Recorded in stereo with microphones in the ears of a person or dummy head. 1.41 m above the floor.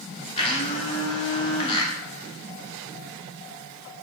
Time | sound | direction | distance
0.4 | a blender | 35° left (ahead or behind) | 0.8 m